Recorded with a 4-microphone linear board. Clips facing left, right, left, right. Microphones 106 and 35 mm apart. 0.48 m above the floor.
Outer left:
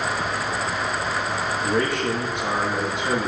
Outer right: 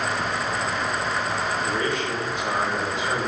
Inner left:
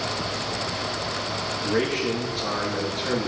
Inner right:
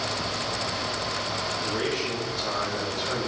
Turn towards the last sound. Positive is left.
turn(degrees=80)